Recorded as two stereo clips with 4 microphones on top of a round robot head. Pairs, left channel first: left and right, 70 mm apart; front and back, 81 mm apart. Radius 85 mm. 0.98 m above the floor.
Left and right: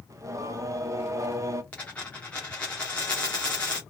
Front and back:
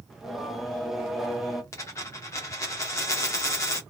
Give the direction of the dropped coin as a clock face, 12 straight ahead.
11 o'clock.